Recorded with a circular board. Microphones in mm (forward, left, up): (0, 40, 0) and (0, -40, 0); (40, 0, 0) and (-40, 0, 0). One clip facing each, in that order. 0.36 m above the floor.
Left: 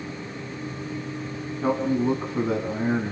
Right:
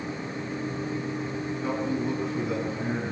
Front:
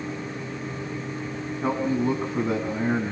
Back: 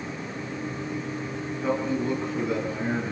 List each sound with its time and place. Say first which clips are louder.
1.6 s a man speaking: left 7 dB, front 2 dB; 45° left, 3.5 m